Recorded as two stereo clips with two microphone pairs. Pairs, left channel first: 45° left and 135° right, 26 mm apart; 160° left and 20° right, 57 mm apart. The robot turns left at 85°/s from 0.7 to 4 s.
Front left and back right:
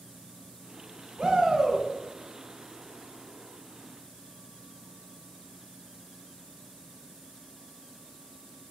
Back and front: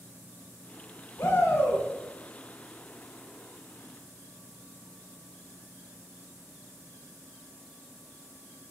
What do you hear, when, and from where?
1.2 s a shout: straight behind, 1.4 m; by 1.8 s 125° left, 1.4 m